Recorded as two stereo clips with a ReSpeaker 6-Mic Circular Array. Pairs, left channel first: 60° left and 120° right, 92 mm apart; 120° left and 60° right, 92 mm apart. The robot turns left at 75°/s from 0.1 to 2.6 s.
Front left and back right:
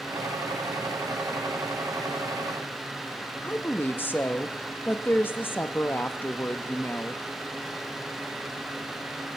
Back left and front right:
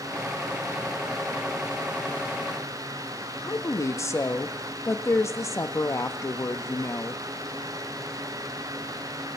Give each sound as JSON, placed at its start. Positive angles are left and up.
{"t": 3.4, "sound": "a woman speaking", "azimuth_deg": 105, "distance_m": 0.5}